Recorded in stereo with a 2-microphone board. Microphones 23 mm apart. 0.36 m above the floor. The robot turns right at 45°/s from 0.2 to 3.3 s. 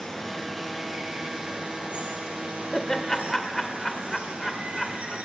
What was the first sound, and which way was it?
Running water, 165° left.